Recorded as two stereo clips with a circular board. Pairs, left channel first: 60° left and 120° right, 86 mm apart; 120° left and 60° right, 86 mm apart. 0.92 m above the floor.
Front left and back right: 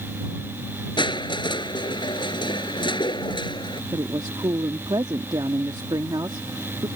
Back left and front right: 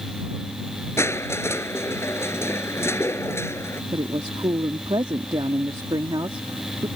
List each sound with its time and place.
1.0 s crushing: 65° left
3.9 s a woman speaking: 90° right